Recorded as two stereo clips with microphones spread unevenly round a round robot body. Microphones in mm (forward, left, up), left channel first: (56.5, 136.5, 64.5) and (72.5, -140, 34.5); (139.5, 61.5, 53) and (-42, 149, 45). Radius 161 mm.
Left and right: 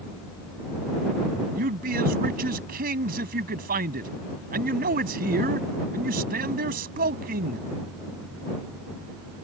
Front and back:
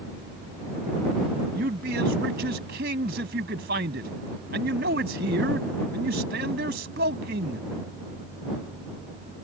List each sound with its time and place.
1.6 s a man speaking: 150° right